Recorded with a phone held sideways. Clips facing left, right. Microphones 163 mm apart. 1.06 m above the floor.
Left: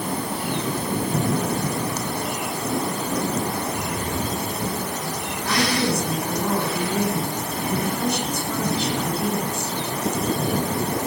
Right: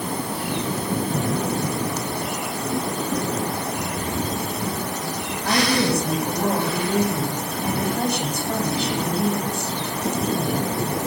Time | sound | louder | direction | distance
5.4 | a woman speaking | right 2 dB | 55° right (ahead or behind) | 8.5 m